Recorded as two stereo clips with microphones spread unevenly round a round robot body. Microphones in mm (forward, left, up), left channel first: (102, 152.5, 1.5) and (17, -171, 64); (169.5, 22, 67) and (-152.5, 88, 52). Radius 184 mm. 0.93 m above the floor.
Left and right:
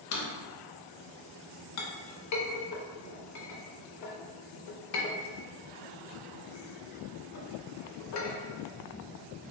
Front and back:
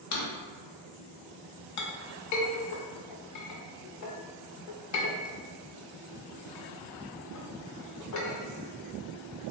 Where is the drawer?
30° left, 0.6 m.